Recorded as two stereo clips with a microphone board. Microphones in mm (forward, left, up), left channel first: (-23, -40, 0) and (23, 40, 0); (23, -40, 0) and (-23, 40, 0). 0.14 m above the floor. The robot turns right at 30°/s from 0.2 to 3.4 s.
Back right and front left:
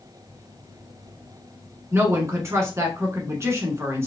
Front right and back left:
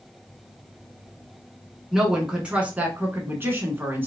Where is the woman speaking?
35° left, 1.1 m; by 4.1 s 80° left, 1.1 m.